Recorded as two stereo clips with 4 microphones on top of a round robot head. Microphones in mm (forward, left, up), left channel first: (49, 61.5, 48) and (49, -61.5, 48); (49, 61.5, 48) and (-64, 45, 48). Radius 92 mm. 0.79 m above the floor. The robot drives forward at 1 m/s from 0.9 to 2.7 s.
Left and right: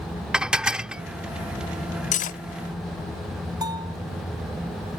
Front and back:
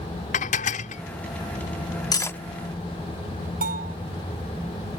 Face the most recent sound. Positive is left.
turn(degrees=-155)